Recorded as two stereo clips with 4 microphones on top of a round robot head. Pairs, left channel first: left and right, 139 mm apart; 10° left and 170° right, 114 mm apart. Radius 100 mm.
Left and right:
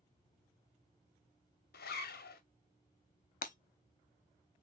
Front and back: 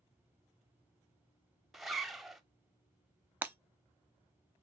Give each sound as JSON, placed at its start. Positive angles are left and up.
{"t": 1.7, "sound": "a zipper", "azimuth_deg": 100, "distance_m": 0.8}
{"t": 3.4, "sound": "breaking glass", "azimuth_deg": 115, "distance_m": 0.7}